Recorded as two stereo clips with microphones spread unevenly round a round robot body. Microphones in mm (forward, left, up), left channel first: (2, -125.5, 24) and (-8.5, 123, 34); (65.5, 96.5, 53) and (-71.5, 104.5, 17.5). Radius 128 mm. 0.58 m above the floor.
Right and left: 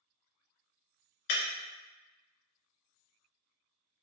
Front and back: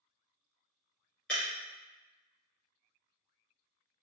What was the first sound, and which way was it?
Breaking glass, 85° right.